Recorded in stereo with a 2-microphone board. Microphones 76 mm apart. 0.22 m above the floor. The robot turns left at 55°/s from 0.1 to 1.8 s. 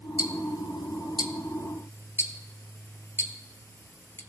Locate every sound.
0.2 s ticking: 55° left (ahead or behind), 0.9 m; by 4.2 s 35° left (ahead or behind), 0.9 m